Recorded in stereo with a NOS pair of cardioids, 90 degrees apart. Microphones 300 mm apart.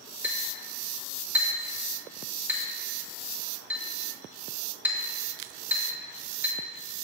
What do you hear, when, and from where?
0.2 s a clink: 5° right, 1.4 m